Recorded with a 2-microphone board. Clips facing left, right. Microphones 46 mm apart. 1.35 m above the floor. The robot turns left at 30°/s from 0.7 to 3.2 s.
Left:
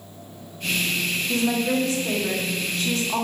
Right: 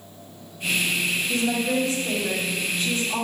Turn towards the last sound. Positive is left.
turn(degrees=80)